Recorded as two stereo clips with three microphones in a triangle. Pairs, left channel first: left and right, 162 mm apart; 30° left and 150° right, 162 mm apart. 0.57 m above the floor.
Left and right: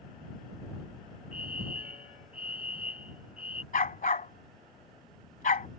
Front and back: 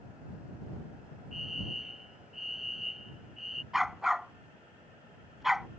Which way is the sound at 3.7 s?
120° left.